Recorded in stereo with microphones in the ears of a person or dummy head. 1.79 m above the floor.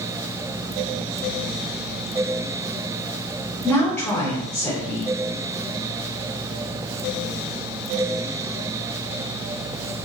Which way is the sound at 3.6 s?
5° left (ahead or behind).